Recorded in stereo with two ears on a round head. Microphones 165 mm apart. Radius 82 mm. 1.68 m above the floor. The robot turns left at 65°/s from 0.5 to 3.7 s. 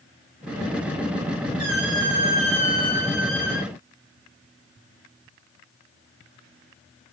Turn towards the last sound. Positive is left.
turn(degrees=120)